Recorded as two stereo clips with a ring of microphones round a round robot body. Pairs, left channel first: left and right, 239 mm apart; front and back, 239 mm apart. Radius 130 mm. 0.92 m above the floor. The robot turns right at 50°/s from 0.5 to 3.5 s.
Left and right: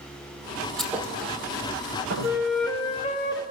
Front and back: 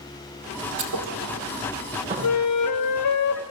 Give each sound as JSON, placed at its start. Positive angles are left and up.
{"t": 0.8, "sound": "a thud", "azimuth_deg": 175, "distance_m": 3.0}
{"t": 2.2, "sound": "a flute", "azimuth_deg": -15, "distance_m": 0.8}